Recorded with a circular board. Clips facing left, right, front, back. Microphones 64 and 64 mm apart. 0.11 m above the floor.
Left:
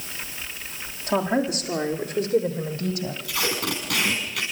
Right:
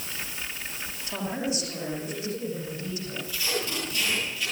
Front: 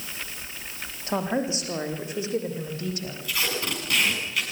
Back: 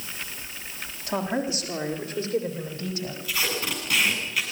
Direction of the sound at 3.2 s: 90° left.